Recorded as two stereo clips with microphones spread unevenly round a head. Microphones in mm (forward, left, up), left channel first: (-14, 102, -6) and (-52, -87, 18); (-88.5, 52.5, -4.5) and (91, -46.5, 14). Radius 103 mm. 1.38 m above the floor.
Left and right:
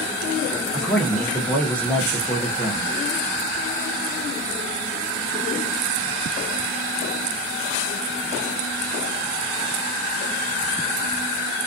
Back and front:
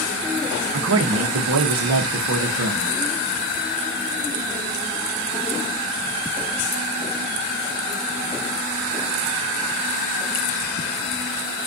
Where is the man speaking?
5° right, 0.6 m.